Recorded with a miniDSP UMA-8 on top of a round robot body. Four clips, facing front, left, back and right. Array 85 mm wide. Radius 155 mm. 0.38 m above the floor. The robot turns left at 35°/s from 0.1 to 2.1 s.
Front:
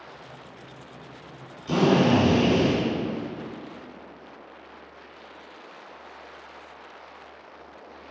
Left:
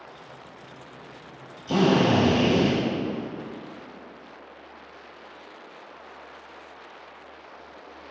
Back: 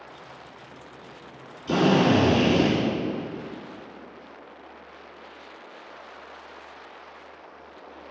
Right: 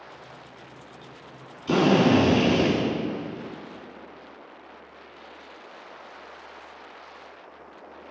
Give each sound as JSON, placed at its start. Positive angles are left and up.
{"t": 1.7, "sound": "a drill", "azimuth_deg": -90, "distance_m": 3.0}